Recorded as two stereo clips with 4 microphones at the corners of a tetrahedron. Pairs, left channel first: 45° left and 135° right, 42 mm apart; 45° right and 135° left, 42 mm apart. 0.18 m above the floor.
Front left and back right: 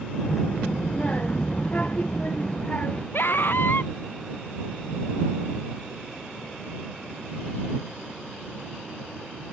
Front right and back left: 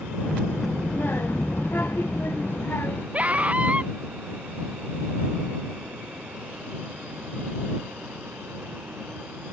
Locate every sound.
0.2 s a child speaking: 5° right; by 3.0 s 15° right
3.1 s a scream: 75° left